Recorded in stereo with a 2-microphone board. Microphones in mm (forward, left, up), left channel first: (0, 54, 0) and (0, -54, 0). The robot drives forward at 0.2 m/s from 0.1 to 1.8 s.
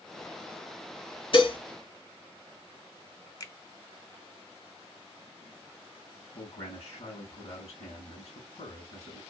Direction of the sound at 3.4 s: 35° left (ahead or behind).